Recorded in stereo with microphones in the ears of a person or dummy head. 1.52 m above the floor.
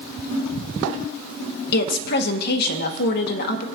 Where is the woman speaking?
60° left (ahead or behind), 1.3 m.